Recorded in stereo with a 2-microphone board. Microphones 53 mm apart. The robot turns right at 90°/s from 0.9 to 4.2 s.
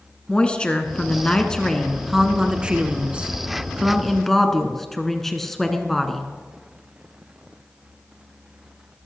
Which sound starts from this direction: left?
A woman speaking, at 0.3 s.